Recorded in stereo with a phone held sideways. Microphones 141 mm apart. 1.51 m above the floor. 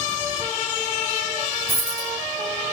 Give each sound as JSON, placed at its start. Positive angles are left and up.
{"t": 1.7, "sound": "a dropped coin", "side_deg": -20, "distance_m": 2.5}